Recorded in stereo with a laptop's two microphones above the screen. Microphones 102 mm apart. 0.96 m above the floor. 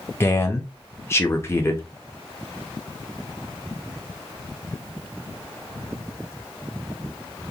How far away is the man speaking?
About 0.8 m.